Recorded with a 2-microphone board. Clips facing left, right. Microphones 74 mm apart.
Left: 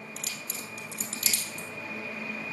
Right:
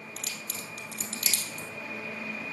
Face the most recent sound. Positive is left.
turn(degrees=-60)  # may be behind; listen again after turning